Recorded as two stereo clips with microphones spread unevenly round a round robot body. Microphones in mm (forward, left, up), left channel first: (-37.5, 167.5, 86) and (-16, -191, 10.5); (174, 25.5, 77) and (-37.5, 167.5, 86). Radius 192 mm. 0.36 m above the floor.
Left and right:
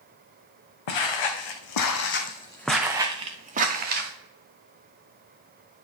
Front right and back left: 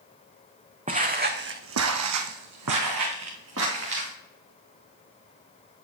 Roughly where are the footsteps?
Left.